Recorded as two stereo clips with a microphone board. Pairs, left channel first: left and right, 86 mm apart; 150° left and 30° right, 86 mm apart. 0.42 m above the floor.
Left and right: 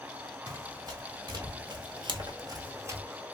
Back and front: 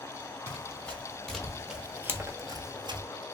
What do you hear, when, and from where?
0.5 s running footsteps: 140° right, 1.2 m; by 3.0 s 30° right, 0.6 m